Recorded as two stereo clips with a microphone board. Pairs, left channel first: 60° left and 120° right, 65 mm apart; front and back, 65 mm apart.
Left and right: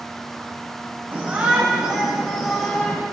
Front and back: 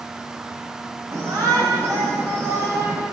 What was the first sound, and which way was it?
A shout, 175° left.